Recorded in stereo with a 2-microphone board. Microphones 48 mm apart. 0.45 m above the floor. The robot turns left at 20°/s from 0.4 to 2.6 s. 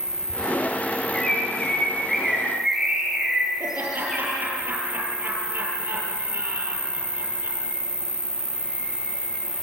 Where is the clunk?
I don't hear a clunk.